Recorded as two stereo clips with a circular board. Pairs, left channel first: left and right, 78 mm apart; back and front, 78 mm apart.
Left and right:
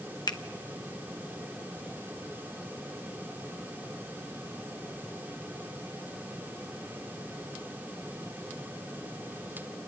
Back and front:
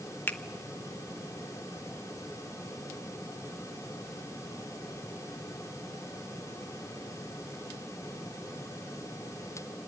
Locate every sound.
0.3 s a finger snap: 115° left, 1.0 m